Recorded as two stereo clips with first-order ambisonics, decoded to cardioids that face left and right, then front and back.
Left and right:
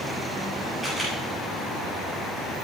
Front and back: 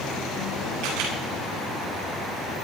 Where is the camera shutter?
170° left, 8.5 m.